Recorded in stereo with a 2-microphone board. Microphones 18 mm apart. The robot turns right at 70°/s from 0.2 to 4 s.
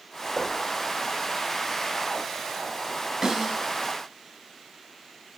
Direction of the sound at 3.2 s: 35° right (ahead or behind).